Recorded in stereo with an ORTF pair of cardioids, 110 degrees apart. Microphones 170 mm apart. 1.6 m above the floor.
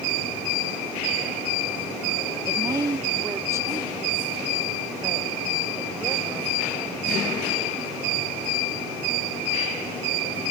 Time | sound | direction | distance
2.5 | a woman speaking | 25° right | ?